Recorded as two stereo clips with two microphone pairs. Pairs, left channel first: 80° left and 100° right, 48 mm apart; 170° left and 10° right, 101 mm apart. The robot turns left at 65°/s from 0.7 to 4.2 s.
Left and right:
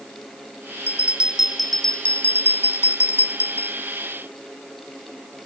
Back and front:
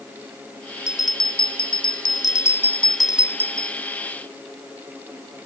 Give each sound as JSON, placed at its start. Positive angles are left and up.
{"t": 0.9, "sound": "a bell", "azimuth_deg": -140, "distance_m": 0.6}